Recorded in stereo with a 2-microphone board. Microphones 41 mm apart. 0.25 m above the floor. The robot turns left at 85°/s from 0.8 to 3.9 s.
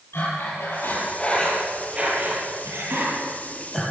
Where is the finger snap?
I don't hear a finger snap.